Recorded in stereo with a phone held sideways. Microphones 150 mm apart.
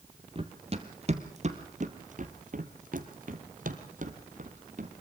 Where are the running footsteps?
40° right (ahead or behind), 2 m; by 4.9 s 55° right (ahead or behind), 2.5 m.